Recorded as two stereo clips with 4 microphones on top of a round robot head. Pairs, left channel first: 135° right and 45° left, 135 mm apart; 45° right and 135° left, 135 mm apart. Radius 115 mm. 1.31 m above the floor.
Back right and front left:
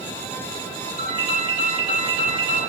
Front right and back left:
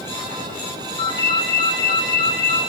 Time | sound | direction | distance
1.0 | a ringtone | 10° left | 5.5 m